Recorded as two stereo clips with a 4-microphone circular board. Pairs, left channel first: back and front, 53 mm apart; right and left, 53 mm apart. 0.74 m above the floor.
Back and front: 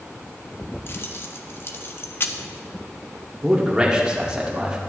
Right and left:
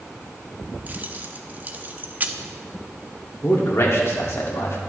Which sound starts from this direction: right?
A man speaking, at 3.4 s.